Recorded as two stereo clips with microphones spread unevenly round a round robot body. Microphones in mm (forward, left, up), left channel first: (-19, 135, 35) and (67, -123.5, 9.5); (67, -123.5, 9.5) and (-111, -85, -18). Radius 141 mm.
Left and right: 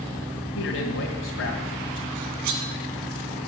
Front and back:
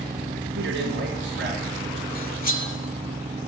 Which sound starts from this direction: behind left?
A man speaking, at 0.6 s.